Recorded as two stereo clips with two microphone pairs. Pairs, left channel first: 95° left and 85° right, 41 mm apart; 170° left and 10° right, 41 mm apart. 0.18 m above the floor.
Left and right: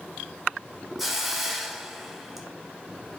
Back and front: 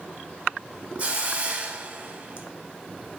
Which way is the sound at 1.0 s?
5° right.